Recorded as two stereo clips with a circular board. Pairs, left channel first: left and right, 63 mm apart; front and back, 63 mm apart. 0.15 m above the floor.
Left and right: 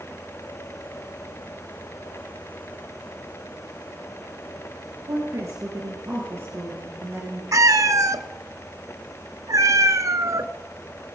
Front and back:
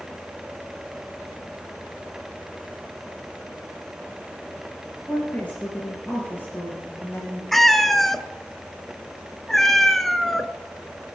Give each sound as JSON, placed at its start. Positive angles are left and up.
{"t": 5.0, "sound": "a woman speaking", "azimuth_deg": -70, "distance_m": 3.5}
{"t": 7.5, "sound": "a cat meowing", "azimuth_deg": -85, "distance_m": 0.6}